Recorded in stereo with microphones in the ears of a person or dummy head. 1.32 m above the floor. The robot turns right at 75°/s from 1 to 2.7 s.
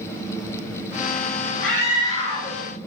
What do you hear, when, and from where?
1.6 s a scream: 110° left, 1.8 m; by 2.6 s 175° right, 1.8 m